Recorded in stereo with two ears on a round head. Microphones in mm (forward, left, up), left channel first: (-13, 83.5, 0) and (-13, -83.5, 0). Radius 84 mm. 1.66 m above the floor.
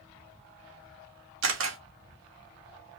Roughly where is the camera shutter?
Right.